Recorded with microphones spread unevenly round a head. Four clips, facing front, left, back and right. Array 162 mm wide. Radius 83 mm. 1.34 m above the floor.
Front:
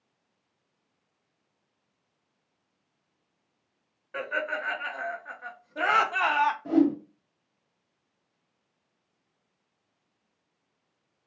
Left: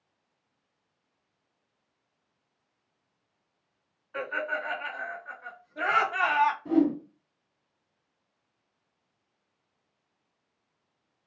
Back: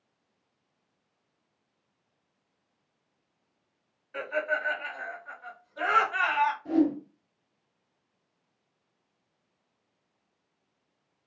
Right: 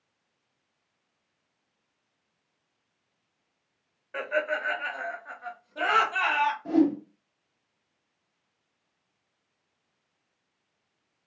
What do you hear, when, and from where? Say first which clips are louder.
4.1 s laughter: right 3 dB, back 1 dB; 50° right, 1.5 m; by 6.5 s 25° left, 0.6 m
6.7 s a whoosh: right 5 dB, front 3 dB; 40° right, 1.3 m